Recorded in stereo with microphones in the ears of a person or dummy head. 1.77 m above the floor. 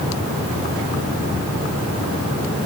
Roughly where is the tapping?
No tapping in this recording.